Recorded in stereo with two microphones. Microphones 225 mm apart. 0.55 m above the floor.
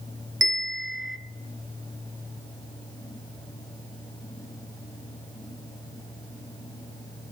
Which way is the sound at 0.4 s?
55° right (ahead or behind).